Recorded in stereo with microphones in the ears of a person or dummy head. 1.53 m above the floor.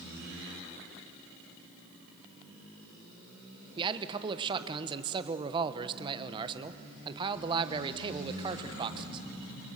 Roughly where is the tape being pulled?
No tape being pulled in this recording.